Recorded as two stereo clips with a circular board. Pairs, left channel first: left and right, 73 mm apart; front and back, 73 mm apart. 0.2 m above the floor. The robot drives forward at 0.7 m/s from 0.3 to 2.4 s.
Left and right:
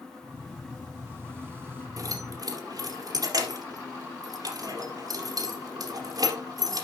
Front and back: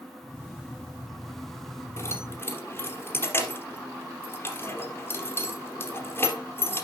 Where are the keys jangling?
55° right, 3 m; by 6.8 s 60° right, 3 m.